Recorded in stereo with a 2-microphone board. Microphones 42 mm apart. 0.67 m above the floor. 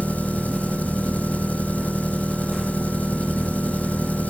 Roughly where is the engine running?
Left.